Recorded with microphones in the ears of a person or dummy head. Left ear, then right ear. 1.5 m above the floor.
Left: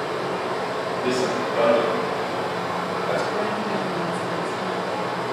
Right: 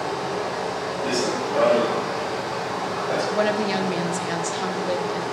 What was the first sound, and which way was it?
Running water, 30° left (ahead or behind).